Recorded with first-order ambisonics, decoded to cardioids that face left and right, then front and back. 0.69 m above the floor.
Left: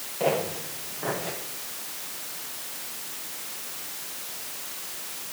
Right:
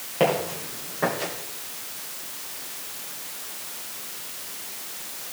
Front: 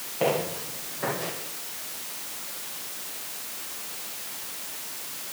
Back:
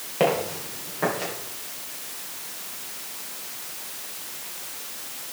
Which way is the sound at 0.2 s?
140° right.